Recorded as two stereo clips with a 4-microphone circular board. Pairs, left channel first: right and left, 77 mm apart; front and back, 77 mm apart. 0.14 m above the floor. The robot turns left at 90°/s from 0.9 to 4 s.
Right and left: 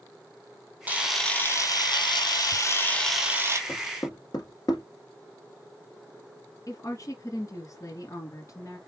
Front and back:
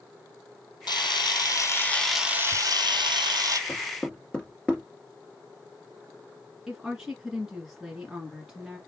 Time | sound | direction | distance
0.9 | a camera shutter | 20° left | 1.4 m
3.7 | knocking | 50° right | 1.8 m
6.7 | a woman speaking | 95° right | 1.8 m